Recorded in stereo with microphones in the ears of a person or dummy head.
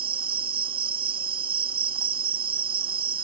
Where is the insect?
30° right (ahead or behind).